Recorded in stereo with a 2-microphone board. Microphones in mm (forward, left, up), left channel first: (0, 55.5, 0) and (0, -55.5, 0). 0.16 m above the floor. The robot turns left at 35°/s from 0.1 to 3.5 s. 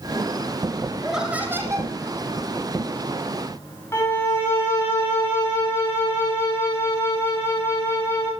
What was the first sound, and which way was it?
Laughter, straight ahead.